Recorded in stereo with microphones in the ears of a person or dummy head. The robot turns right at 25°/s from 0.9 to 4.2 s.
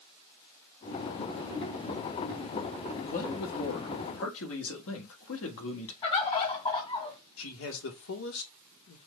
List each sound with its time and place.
3.0 s a man speaking: 45° left (ahead or behind), 1.4 m; by 5.9 s 75° left (ahead or behind), 1.4 m
6.0 s a bird: 30° left (ahead or behind), 1.8 m
7.4 s a man speaking: 75° left (ahead or behind), 1.3 m